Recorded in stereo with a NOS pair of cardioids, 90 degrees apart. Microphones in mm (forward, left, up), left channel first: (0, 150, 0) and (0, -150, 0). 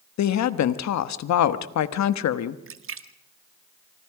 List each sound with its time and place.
0.2 s a woman speaking: 65° left, 1.3 m
2.7 s a splash: 45° right, 1.5 m